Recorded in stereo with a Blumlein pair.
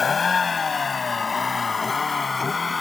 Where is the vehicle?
15° left; by 2.8 s 10° left.